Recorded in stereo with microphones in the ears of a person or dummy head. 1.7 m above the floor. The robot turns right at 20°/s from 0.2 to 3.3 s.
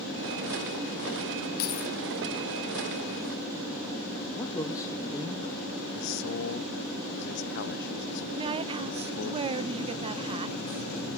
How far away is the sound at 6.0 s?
About 0.8 m.